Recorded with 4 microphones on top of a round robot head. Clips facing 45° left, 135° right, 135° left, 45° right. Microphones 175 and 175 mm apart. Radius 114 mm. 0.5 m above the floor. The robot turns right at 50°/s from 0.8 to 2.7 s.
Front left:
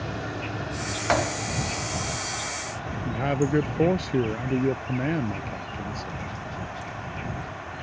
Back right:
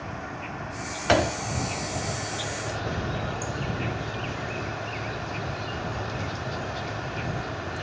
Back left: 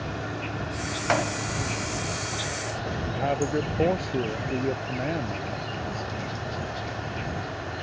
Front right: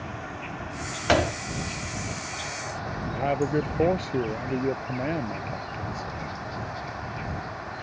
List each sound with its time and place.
0.0 s an insect: 90° left; by 7.8 s 175° right
1.1 s a door slam: 85° right; by 1.4 s 70° right
3.0 s a man speaking: 40° left